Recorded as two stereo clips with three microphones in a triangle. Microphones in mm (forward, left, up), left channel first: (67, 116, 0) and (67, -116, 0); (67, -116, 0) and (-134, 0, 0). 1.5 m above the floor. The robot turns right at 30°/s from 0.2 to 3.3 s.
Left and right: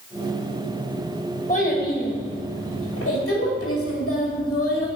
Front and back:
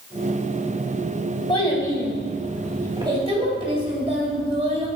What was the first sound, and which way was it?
A child speaking, 30° left.